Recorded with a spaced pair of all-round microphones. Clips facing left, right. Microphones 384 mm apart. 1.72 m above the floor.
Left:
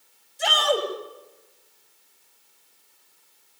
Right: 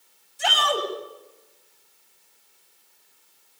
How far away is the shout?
About 8.5 m.